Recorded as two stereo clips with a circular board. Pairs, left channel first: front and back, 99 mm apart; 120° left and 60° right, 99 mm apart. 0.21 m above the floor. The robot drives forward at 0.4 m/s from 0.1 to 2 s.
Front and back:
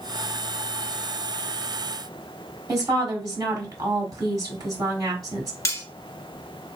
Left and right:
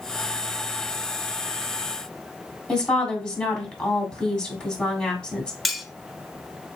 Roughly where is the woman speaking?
Behind.